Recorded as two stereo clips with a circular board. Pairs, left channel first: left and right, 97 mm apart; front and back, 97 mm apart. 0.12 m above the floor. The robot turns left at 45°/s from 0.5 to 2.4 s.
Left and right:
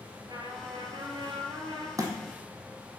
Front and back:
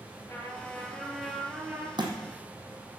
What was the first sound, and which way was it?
A trumpet, 55° right.